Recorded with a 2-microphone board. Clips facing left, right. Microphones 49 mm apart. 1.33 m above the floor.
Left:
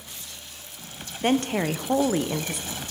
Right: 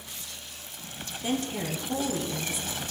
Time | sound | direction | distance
1.2 | a woman speaking | 60° left (ahead or behind) | 0.7 m